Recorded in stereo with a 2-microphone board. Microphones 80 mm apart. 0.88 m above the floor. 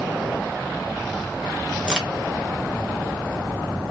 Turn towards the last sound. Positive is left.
turn(degrees=-15)  # may be behind; listen again after turning